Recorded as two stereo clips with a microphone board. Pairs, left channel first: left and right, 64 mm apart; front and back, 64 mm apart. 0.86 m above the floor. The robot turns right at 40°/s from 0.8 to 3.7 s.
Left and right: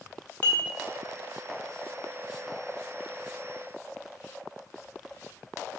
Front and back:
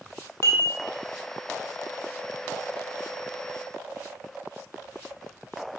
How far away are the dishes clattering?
About 2.0 m.